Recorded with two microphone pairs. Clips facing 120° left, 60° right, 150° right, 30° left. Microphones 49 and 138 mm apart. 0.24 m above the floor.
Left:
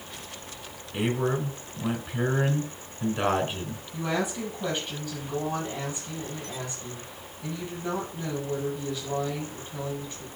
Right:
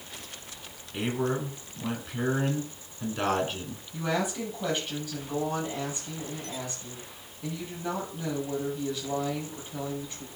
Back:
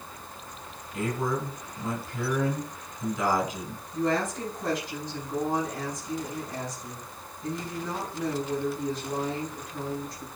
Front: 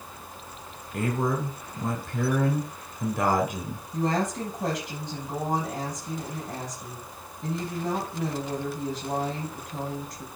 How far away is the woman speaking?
About 6 m.